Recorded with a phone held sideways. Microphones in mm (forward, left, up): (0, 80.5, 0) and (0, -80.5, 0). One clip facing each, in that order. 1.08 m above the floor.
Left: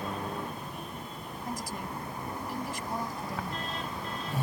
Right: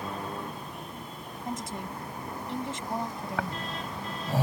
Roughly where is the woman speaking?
Right.